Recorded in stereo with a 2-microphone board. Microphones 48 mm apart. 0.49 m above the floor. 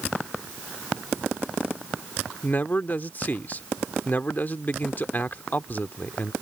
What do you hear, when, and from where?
2.4 s a man speaking: 40° left (ahead or behind)